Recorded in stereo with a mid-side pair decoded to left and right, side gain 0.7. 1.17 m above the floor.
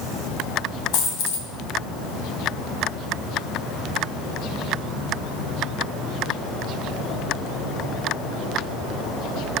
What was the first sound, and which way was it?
A dropped coin, 65° left.